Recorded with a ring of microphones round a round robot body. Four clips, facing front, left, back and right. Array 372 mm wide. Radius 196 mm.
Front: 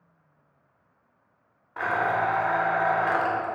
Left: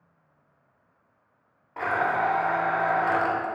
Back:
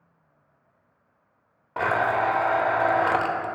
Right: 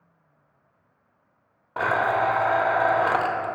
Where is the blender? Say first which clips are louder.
Right 3 dB, back 2 dB; 145° right, 0.5 m.